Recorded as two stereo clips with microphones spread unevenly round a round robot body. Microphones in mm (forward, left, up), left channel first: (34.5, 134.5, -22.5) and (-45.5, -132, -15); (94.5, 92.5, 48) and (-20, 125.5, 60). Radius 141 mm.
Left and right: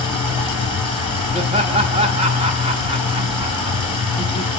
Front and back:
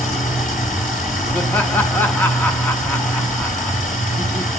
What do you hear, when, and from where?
0.0 s running water: 35° right, 3.5 m
1.3 s laughter: 55° right, 0.6 m